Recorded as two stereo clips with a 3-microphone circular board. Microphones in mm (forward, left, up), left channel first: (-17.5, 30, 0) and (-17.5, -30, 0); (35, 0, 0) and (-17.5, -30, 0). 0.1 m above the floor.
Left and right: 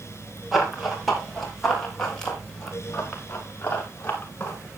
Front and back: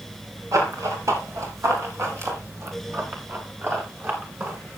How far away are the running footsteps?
About 5 m.